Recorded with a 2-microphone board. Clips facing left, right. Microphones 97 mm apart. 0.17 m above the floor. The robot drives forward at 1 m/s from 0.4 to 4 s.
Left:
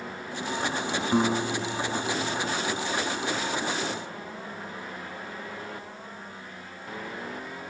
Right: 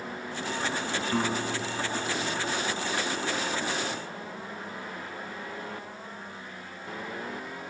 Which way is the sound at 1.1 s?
20° left (ahead or behind).